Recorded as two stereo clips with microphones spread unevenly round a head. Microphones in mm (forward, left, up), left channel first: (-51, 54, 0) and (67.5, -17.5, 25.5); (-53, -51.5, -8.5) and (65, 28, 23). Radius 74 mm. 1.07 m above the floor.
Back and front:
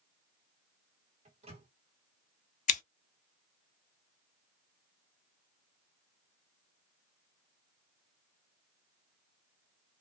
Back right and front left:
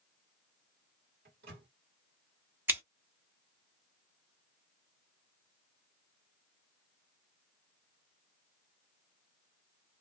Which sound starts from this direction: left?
Scissors, at 2.7 s.